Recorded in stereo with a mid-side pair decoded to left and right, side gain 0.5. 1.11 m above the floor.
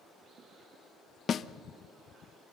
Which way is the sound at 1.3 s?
45° left.